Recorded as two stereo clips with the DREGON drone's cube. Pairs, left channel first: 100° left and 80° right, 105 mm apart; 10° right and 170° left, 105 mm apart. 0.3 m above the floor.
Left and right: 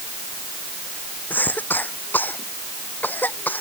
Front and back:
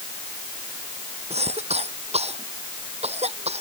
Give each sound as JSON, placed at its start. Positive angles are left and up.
{"t": 1.3, "sound": "a cough", "azimuth_deg": 175}